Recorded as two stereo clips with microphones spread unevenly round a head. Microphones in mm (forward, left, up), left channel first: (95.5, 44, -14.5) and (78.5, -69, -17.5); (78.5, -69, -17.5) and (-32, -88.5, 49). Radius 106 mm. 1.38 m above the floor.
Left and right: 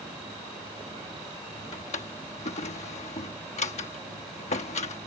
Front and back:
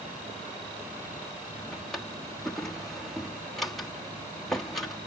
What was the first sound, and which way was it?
A drawer, 110° left.